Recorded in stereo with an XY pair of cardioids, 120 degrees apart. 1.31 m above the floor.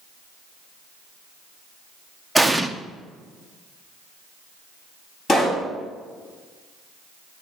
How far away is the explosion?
About 0.8 m.